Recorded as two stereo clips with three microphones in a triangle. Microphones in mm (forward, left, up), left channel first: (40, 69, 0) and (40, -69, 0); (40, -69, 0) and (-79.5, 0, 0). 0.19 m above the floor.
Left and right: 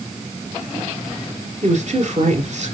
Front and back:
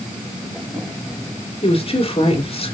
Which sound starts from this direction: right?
A woman speaking, at 1.6 s.